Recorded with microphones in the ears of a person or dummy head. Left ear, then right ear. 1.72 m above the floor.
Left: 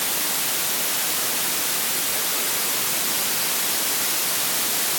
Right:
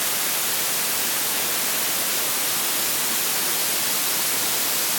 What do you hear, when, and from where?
Only background noise.